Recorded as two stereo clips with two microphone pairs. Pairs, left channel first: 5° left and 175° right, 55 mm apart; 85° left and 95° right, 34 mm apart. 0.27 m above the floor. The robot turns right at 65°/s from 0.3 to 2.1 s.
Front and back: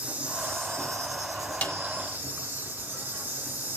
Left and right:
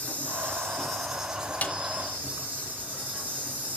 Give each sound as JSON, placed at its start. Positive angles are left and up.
{"t": 0.0, "sound": "an insect", "azimuth_deg": 125, "distance_m": 6.0}
{"t": 1.6, "sound": "a snare drum", "azimuth_deg": 65, "distance_m": 1.8}